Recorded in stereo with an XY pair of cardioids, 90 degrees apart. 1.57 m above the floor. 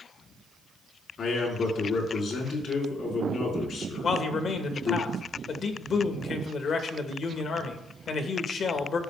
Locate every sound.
1.2 s a man speaking: 65° left, 4 m
4.0 s a man speaking: 65° left, 1.5 m